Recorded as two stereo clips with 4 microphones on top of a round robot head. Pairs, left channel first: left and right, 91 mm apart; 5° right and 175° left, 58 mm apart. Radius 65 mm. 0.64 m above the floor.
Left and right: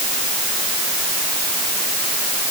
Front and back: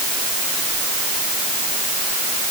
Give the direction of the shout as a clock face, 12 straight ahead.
No shout in this recording.